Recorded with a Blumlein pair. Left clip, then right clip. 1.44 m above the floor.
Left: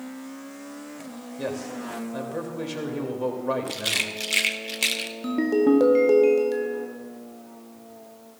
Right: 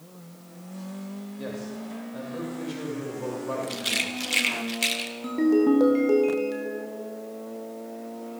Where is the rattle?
5° left, 0.8 m.